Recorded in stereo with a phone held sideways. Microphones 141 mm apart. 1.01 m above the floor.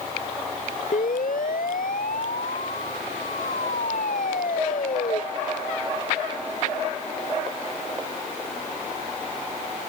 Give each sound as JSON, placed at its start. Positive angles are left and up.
{"t": 0.9, "sound": "a siren", "side_deg": 75}